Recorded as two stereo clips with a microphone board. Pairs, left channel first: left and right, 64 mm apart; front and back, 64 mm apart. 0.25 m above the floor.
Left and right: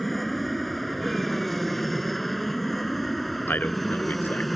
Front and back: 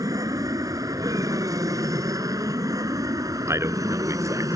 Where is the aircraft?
Straight behind.